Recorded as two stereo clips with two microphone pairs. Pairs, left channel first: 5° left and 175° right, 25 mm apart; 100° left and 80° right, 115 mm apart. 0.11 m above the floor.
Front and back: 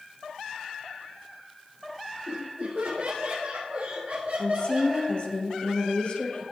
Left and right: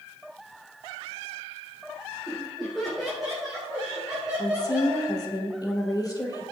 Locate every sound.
2.3 s laughter: 175° right, 3.5 m; by 5.1 s 160° right, 4.5 m
4.4 s a woman speaking: 50° left, 3 m